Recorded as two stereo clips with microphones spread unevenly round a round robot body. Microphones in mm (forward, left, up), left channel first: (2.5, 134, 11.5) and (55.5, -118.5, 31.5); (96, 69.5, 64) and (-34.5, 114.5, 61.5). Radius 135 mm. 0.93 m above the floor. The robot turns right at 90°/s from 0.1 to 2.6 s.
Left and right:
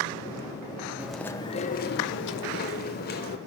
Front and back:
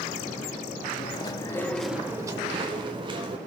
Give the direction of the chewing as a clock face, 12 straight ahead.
12 o'clock.